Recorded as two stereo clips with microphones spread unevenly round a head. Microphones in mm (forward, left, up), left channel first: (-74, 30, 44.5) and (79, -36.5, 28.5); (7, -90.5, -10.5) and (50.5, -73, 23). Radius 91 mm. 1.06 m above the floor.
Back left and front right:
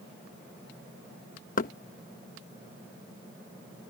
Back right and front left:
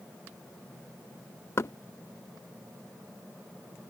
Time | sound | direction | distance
1.6 | knocking | 160° right | ?